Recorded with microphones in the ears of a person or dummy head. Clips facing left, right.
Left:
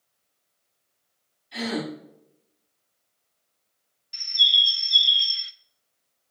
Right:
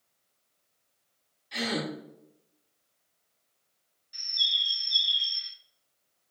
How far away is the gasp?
About 3.5 m.